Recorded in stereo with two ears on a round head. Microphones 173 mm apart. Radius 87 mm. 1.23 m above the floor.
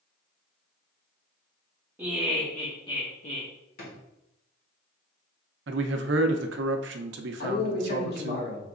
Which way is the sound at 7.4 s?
55° left (ahead or behind).